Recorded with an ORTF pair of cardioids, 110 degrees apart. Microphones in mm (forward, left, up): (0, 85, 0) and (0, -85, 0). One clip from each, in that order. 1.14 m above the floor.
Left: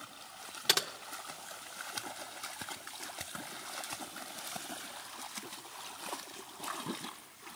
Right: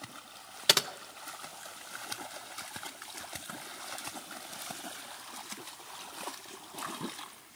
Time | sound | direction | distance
0.7 | typing on a keyboard | 25° right | 0.6 m